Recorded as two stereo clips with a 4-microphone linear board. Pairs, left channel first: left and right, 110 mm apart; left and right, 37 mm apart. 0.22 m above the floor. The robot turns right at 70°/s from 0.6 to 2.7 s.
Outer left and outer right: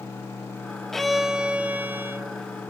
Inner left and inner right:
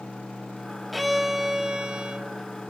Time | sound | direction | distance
0.9 | a violin | 5° left (ahead or behind) | 0.5 m